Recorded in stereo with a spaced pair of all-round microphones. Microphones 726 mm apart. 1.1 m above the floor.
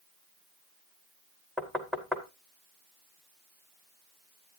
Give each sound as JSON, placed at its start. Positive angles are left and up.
{"t": 1.6, "sound": "knocking", "side_deg": 0, "distance_m": 1.7}